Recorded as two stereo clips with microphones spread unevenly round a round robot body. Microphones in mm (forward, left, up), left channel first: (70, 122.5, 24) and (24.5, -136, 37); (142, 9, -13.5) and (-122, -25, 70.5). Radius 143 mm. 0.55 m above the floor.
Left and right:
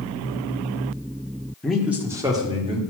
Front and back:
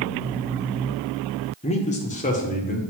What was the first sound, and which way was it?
A man speaking, 5° right.